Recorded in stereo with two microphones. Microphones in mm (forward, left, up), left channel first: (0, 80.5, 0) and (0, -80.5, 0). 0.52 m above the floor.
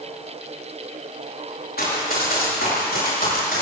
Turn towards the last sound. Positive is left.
turn(degrees=75)  # may be behind; listen again after turning